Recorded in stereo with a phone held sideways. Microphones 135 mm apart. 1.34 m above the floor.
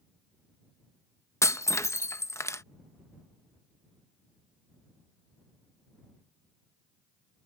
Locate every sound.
1.4 s breaking glass: 20° left (ahead or behind)